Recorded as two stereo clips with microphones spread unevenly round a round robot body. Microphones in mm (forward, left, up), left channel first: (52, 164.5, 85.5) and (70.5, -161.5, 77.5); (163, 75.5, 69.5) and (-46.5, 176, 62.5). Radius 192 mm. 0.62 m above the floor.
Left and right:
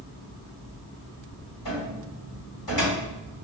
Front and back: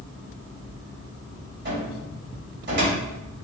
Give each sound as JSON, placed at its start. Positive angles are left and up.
{"t": 1.6, "sound": "a cupboard door", "azimuth_deg": 125, "distance_m": 1.8}